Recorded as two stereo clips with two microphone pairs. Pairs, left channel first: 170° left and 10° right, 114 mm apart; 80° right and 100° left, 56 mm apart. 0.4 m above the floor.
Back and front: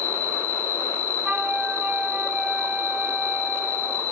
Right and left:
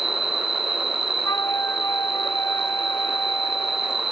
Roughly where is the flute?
Right.